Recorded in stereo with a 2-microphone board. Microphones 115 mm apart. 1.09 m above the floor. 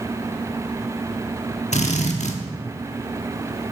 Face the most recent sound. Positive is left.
turn(degrees=70)  # may be behind; listen again after turning